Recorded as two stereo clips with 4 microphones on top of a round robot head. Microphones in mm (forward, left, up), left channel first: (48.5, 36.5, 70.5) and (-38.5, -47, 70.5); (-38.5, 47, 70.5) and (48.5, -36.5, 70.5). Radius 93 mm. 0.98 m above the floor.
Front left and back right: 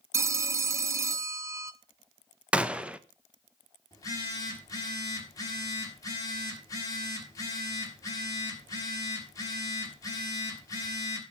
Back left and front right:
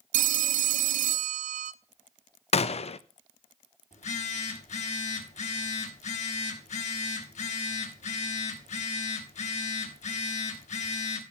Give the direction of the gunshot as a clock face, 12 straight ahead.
7 o'clock.